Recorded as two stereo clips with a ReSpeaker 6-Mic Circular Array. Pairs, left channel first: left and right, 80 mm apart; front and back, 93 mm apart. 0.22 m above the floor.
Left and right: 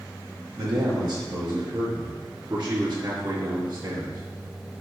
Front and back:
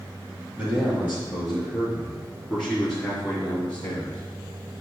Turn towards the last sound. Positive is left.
turn(degrees=-70)